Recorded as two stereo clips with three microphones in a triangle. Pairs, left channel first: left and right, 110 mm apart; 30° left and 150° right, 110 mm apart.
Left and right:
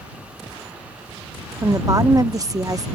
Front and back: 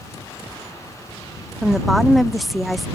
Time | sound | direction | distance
1.6 | a woman speaking | 60° right | ?